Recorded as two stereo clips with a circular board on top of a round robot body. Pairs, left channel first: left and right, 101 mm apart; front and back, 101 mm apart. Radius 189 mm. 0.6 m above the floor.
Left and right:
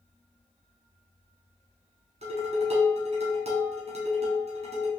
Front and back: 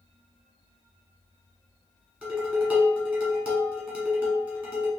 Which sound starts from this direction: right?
Dishes clattering, at 2.2 s.